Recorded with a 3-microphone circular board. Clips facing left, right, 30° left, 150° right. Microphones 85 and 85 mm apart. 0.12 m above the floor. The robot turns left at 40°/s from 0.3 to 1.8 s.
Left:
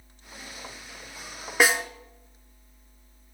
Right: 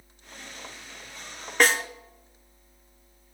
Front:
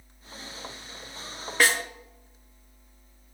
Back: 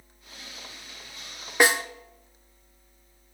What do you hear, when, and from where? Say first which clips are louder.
1.6 s a snare drum: even, back 3 dB; 160° left, 0.7 m; by 1.8 s 155° left, 0.7 m